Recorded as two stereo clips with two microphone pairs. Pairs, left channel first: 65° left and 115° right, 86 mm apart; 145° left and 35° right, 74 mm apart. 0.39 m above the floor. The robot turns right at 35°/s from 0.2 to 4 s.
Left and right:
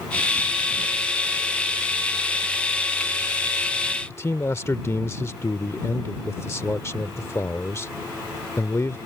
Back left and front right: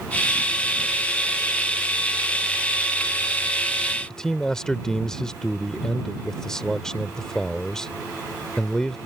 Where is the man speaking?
70° left.